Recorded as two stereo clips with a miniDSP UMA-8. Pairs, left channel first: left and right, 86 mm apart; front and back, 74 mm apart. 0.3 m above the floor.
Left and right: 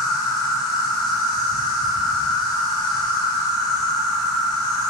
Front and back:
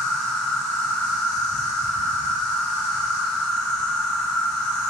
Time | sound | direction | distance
0.0 | an insect | 75° left | 1.4 m